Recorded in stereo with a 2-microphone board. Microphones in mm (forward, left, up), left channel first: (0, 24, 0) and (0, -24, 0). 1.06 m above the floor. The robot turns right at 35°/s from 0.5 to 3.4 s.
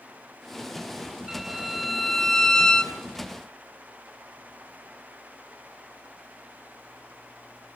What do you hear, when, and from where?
1.3 s a violin: 10° right (ahead or behind), 0.8 m; by 3.0 s 15° left (ahead or behind), 0.8 m